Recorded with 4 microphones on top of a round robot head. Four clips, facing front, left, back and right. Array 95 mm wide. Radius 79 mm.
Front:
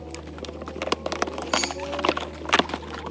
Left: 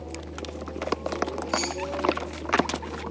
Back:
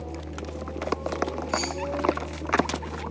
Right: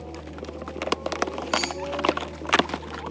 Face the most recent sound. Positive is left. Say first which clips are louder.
# right 1 dB, front 2 dB
turn(degrees=10)